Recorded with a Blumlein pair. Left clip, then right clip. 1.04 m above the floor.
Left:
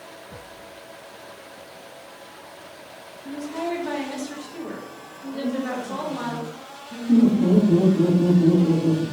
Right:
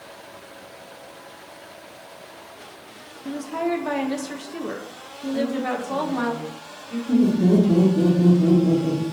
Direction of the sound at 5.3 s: 10° right.